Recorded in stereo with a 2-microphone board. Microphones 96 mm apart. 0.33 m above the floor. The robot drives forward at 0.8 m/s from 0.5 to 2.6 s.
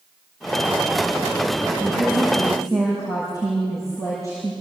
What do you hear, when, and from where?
1.8 s a woman speaking: 35° right (ahead or behind), 7 m; by 4.5 s 30° right (ahead or behind), 7.5 m